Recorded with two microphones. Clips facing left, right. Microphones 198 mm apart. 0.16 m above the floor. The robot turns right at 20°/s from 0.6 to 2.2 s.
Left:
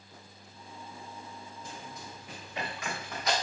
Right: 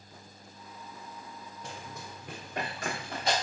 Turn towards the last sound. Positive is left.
turn(degrees=-30)  # may be behind; listen again after turning